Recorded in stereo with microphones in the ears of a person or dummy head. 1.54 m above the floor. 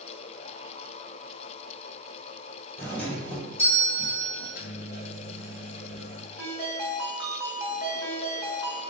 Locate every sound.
2.8 s a doorbell: 15° left (ahead or behind), 1.6 m
4.4 s a microwave: 50° left (ahead or behind), 1.2 m
6.4 s a ringtone: 10° right (ahead or behind), 1.3 m